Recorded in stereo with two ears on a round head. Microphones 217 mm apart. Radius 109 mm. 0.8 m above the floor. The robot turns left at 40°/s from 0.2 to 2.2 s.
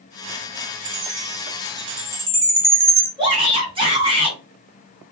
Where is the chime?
35° right (ahead or behind), 0.7 m; by 3.1 s 10° right (ahead or behind), 0.7 m.